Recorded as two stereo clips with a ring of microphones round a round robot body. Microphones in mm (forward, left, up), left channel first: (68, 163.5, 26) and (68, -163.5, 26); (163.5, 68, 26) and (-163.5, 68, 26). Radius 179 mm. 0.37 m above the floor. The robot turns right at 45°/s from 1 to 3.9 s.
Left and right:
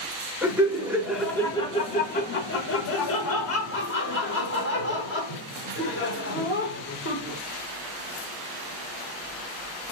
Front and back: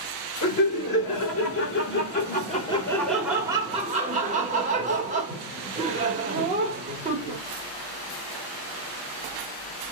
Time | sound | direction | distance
0.4 | laughter | 10° right | 1.4 m